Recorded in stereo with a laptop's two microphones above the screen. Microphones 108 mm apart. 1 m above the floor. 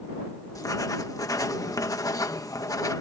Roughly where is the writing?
Left.